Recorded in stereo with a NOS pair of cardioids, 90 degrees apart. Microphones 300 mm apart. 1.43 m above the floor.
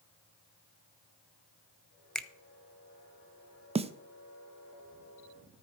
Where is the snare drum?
20° right, 0.7 m.